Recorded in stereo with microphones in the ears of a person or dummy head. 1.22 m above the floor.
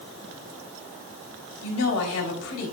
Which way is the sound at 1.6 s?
80° left.